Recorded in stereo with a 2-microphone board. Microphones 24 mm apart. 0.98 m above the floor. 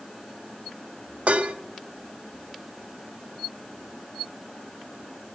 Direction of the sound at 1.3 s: 70° right (ahead or behind).